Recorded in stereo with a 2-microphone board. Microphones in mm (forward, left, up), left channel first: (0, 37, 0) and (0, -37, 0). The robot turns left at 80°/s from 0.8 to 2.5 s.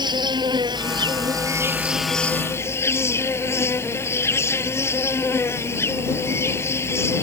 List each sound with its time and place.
0.0 s an insect: 80° right; by 7.2 s 145° left